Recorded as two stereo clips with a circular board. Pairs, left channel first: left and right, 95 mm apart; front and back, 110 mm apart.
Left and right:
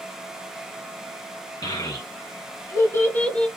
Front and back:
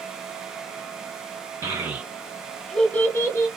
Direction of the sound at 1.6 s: 120° left.